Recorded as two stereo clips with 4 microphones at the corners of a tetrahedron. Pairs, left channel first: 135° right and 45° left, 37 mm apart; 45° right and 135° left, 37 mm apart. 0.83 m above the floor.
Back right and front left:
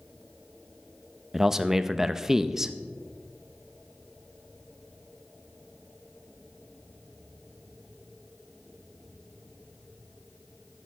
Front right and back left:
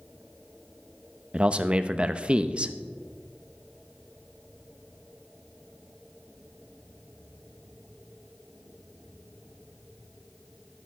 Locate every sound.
1.3 s a man speaking: 115° left, 0.5 m